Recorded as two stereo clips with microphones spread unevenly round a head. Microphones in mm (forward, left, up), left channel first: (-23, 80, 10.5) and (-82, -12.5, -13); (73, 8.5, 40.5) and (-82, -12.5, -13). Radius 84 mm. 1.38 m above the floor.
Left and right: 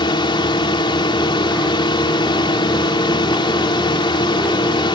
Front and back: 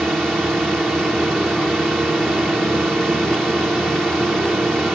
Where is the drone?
100° left.